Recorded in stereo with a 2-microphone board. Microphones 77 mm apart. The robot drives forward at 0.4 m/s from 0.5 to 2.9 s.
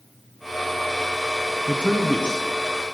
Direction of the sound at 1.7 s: 15° left (ahead or behind).